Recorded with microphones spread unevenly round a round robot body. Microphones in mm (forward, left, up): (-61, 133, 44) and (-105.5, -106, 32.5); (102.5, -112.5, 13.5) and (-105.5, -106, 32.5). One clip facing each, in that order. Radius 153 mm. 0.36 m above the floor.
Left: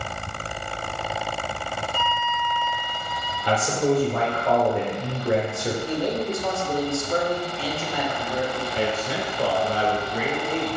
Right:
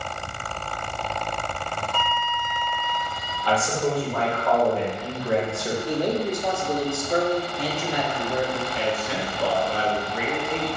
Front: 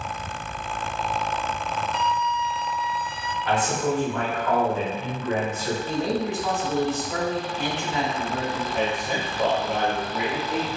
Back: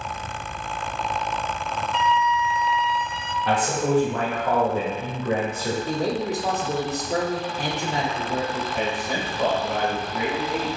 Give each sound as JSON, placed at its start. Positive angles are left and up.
{"t": 1.9, "sound": "a flute", "azimuth_deg": -60, "distance_m": 0.5}
{"t": 3.5, "sound": "a man speaking", "azimuth_deg": 140, "distance_m": 1.1}
{"t": 5.9, "sound": "a man speaking", "azimuth_deg": -160, "distance_m": 1.0}
{"t": 8.7, "sound": "a man speaking", "azimuth_deg": 70, "distance_m": 0.9}